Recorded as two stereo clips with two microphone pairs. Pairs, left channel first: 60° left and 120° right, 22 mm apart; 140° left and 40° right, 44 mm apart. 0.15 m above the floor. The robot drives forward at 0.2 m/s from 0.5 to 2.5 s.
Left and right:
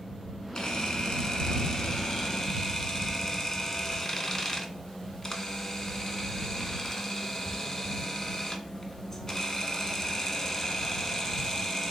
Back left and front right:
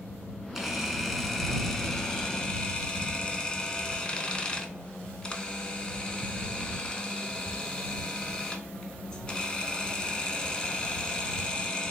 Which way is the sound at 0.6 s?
45° left.